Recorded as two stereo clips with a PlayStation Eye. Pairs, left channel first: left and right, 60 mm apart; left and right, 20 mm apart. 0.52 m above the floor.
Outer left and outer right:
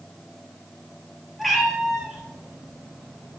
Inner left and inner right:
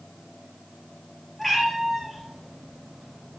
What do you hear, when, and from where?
1.4 s a cat meowing: centre (ahead or behind), 2.5 m; by 3.4 s 25° right (ahead or behind), 3.5 m